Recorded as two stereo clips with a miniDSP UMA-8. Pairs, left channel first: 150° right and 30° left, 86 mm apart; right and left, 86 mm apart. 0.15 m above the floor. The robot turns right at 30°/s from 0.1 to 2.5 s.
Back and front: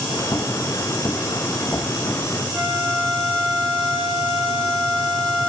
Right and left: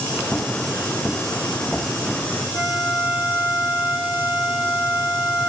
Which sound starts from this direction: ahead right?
A flute, at 2.5 s.